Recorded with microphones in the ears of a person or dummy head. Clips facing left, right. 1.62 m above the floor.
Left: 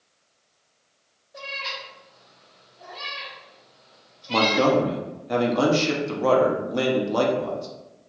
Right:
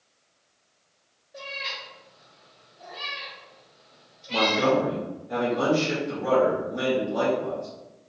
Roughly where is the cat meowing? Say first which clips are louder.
Left 2 dB; centre.